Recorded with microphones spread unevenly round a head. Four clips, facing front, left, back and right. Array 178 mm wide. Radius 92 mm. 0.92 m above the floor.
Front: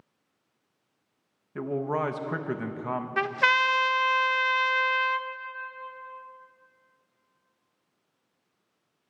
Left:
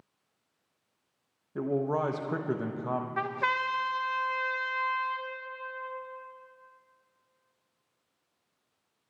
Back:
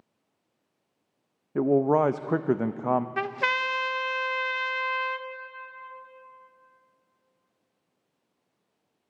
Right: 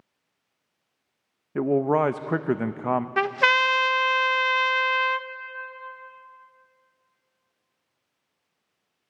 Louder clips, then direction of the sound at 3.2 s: Right 9 dB, front 3 dB; 85° right.